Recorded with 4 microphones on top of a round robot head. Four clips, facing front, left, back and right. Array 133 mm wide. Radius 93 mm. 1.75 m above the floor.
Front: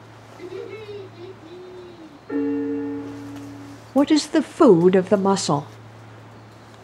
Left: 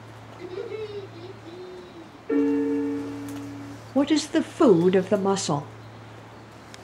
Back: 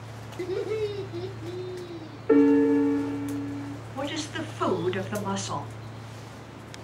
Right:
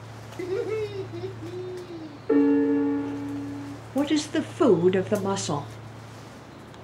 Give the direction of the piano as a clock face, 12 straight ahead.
5 o'clock.